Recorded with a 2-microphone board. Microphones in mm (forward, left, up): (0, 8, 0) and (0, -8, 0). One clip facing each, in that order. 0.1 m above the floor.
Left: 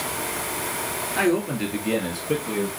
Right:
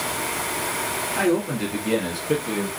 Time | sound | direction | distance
1.2 | a man speaking | 20° left (ahead or behind) | 1.9 m